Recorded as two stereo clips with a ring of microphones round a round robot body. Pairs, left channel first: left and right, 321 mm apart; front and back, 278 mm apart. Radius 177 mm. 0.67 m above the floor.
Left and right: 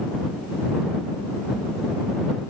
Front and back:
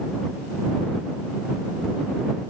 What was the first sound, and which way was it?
Only background noise.